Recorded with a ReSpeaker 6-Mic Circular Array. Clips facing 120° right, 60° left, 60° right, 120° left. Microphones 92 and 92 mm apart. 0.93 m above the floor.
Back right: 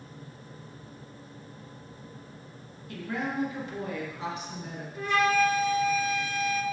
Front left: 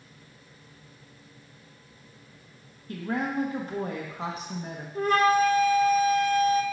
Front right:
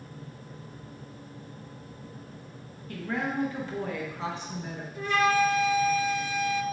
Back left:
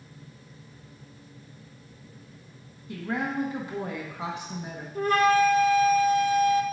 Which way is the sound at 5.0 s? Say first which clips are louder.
Front left 3 dB, back left 3 dB; 90° left.